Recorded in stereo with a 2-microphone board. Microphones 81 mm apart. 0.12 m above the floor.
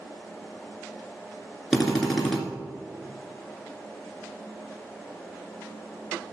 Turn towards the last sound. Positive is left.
turn(degrees=5)  # may be behind; listen again after turning